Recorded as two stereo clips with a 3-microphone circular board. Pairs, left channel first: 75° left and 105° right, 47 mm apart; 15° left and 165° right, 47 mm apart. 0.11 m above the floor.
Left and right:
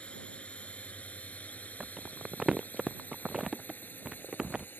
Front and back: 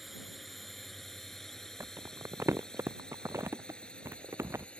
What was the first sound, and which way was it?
A drone, 105° left.